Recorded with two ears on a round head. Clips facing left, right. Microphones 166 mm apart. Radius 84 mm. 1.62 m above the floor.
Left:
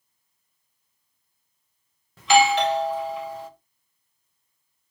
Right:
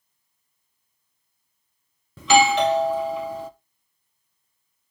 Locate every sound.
2.2 s a doorbell: 80° right, 1.2 m